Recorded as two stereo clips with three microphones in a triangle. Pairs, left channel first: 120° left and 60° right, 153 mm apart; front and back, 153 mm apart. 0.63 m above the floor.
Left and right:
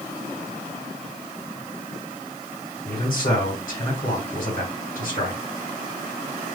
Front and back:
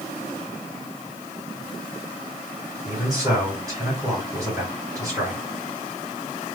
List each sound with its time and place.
2.9 s a man speaking: 115° left, 2.5 m